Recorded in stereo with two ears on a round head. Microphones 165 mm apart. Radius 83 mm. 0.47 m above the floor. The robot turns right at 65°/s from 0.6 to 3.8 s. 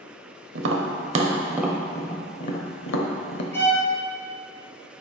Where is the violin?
15° left (ahead or behind), 2.5 m; by 3.9 s 5° right (ahead or behind), 2.5 m.